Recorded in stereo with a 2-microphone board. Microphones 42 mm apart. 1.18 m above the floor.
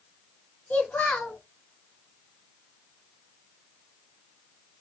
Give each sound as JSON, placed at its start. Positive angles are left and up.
{"t": 0.7, "sound": "a child speaking", "side_deg": 35, "distance_m": 1.3}